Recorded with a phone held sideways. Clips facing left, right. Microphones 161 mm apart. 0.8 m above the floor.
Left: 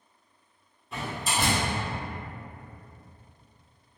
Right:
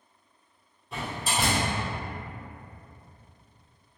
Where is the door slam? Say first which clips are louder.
Even; centre (ahead or behind), 1.6 m.